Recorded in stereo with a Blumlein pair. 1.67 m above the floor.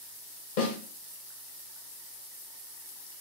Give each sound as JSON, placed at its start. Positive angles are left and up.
{"t": 0.6, "sound": "a snare drum", "azimuth_deg": 50, "distance_m": 1.7}